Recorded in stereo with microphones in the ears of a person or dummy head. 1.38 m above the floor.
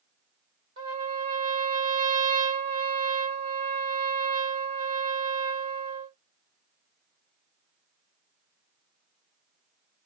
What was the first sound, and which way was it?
A trumpet, 35° right (ahead or behind).